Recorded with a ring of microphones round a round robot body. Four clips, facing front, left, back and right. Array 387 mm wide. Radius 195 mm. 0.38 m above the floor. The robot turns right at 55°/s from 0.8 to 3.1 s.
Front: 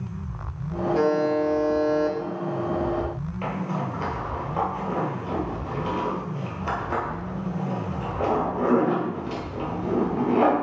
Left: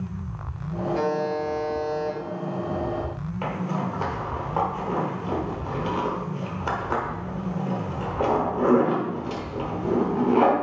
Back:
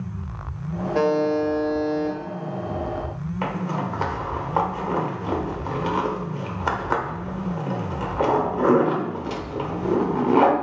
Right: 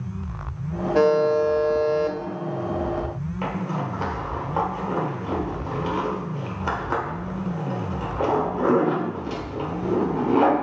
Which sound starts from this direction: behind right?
A buzzer, at 0.9 s.